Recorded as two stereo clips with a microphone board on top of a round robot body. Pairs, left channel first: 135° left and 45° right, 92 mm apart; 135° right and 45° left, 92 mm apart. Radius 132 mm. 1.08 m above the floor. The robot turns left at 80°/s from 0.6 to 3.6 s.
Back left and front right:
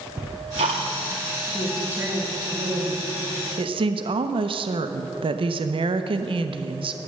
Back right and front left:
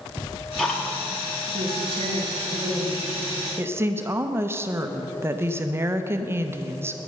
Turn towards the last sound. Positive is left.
turn(degrees=-20)